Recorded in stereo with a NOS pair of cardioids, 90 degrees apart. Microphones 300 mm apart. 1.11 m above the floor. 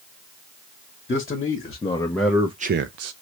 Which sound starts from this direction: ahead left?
A man speaking, at 1.1 s.